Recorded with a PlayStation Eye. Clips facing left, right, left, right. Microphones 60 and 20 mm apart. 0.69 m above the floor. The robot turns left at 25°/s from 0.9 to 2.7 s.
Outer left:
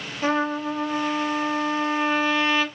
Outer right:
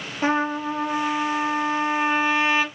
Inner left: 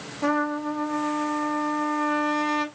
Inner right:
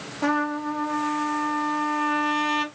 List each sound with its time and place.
0.2 s a trumpet: 25° right (ahead or behind), 0.6 m; by 2.6 s 15° right (ahead or behind), 0.6 m